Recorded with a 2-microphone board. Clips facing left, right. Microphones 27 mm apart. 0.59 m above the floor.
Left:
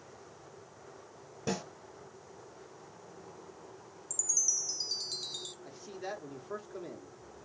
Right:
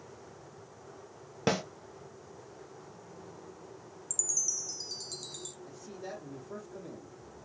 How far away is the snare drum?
About 0.6 m.